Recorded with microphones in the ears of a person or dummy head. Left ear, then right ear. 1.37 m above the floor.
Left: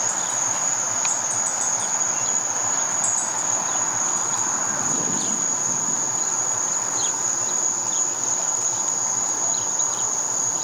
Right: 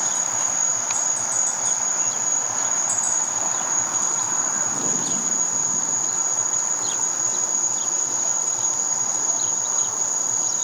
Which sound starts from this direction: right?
An insect, at 0.0 s.